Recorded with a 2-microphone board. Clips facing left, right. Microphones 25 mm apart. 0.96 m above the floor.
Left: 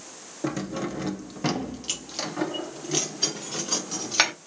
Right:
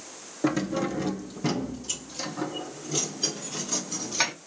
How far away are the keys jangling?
About 1.0 m.